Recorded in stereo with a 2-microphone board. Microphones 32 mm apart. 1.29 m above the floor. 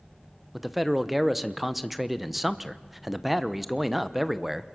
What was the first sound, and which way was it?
A man speaking, centre (ahead or behind).